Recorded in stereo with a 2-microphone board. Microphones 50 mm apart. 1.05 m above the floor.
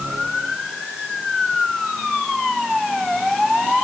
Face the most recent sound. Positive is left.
No sound to turn to.